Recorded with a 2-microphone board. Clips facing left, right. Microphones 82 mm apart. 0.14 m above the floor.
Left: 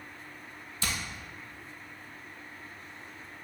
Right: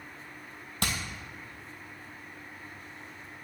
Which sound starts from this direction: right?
Hammering, at 0.8 s.